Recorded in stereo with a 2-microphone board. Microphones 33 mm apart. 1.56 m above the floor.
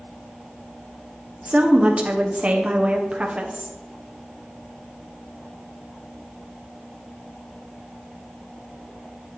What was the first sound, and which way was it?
A woman speaking, 35° right (ahead or behind).